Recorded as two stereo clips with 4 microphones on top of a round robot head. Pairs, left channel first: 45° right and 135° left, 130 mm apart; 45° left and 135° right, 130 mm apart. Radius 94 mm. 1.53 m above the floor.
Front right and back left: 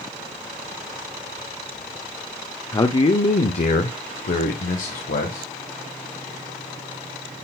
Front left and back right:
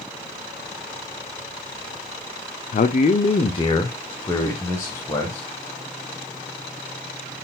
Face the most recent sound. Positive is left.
turn(degrees=-30)